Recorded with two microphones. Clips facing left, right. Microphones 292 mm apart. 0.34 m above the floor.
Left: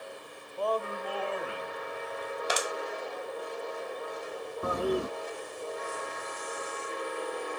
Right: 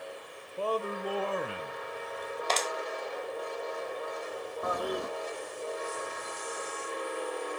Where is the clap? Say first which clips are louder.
Even; 10° left (ahead or behind), 1.1 m.